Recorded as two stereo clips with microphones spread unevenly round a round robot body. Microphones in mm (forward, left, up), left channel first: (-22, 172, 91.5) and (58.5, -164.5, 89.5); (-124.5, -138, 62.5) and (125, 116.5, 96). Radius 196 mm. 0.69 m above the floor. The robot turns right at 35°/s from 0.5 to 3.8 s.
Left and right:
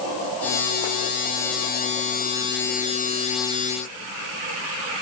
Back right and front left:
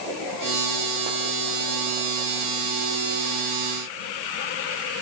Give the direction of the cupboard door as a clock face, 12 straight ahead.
I don't hear a cupboard door.